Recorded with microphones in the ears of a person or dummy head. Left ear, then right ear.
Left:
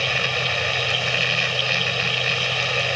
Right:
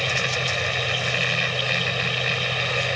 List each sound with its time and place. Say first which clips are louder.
0.0 s a machine running: left 2 dB; 15° left (ahead or behind)